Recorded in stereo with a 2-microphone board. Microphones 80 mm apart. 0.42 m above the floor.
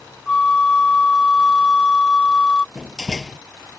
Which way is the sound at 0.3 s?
10° left (ahead or behind).